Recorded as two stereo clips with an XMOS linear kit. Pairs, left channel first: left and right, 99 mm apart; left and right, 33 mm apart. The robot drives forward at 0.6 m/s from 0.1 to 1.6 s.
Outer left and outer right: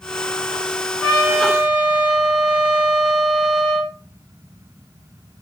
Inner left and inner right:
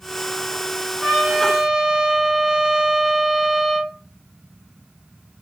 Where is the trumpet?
10° right (ahead or behind), 1.7 m.